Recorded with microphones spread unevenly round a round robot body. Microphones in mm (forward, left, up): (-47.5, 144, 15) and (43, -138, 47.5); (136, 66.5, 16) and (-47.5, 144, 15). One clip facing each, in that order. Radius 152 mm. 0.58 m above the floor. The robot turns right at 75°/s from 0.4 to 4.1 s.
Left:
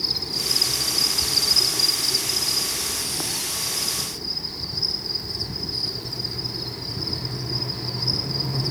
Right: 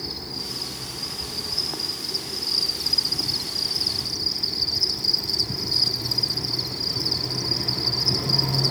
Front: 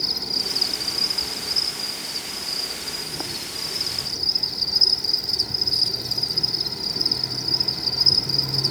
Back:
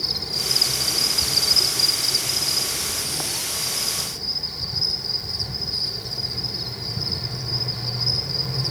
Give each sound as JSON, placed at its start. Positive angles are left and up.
{"t": 0.0, "sound": "an insect", "azimuth_deg": 40, "distance_m": 1.7}